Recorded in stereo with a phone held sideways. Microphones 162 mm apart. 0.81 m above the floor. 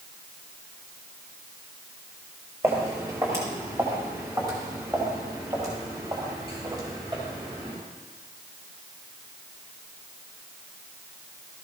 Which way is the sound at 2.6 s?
20° right (ahead or behind).